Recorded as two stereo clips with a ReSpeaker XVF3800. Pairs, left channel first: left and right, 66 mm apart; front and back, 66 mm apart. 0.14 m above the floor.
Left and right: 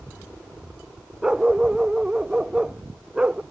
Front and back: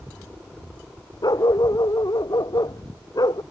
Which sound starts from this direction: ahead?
A dog barking, at 1.2 s.